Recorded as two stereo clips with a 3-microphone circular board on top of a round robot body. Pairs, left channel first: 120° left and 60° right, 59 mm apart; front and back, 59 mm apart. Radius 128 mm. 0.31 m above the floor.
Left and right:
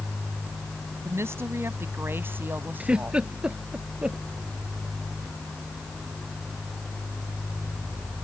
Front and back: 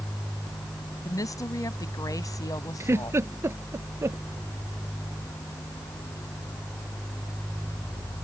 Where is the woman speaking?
15° right; by 3.2 s straight ahead.